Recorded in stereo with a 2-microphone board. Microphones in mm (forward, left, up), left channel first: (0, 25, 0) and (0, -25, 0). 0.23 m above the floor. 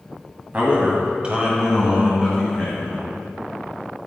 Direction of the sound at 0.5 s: 30° right (ahead or behind).